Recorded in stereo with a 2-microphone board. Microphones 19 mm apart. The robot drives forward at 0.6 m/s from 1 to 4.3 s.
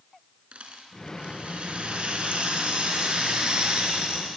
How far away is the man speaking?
No man speaking in this recording.